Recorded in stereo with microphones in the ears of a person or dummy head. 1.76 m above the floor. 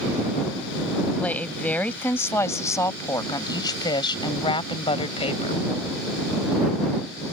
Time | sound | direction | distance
1.2 | a woman speaking | centre (ahead or behind) | ?